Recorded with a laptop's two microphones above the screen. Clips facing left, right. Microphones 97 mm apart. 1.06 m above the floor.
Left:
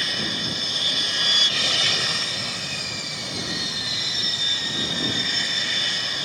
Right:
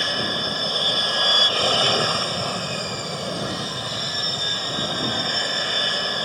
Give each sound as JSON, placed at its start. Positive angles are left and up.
{"t": 0.0, "sound": "an aircraft", "side_deg": -40}